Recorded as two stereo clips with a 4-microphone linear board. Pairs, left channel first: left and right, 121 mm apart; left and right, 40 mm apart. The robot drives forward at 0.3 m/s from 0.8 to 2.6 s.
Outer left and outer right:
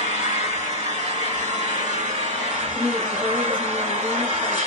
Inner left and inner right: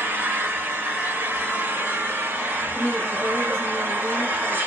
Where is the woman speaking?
15° left (ahead or behind), 1.6 m.